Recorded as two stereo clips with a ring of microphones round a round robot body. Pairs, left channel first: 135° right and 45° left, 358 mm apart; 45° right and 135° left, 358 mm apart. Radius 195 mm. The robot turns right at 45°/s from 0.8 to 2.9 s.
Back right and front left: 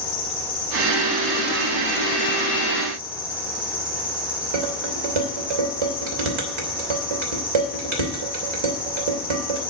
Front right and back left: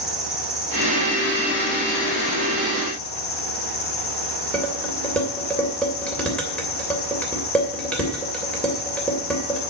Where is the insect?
135° right, 4 m; by 9.7 s 40° right, 4 m.